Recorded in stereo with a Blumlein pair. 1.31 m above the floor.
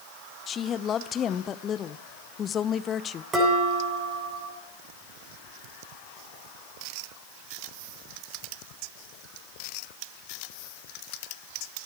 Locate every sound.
0.5 s a woman speaking: 25° left, 0.6 m
3.3 s dishes clattering: 20° right, 8 m